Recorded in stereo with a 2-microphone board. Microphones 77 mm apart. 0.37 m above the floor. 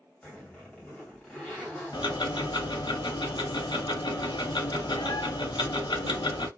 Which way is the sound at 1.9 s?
80° left.